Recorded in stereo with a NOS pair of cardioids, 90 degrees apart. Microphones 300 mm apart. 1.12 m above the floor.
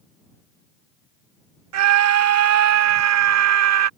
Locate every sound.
1.7 s a scream: 65° right